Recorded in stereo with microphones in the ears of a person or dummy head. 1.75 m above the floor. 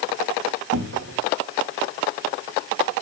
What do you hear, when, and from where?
0.7 s a cupboard door: 75° right (ahead or behind), 4.5 m